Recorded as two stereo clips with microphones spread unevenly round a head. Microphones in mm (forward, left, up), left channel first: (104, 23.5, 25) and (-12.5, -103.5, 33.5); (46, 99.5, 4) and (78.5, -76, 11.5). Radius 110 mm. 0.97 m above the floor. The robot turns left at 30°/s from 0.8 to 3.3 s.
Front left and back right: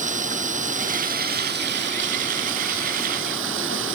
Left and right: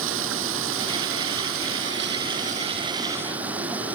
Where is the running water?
90° right; by 4.0 s 165° right.